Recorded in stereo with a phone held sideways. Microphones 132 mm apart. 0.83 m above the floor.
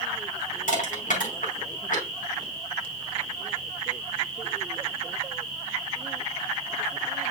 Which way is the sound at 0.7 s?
80° left.